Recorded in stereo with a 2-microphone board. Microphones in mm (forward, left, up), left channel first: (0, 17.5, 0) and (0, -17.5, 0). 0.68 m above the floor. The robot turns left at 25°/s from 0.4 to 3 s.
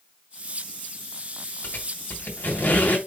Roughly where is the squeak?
Left.